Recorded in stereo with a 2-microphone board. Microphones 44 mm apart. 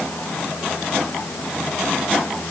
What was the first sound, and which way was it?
Only background noise.